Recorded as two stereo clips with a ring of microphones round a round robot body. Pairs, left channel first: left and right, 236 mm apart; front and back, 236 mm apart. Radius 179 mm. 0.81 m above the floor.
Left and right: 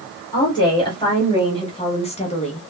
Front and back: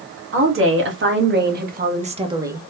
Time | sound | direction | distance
0.3 | a woman speaking | 165° left | 1.6 m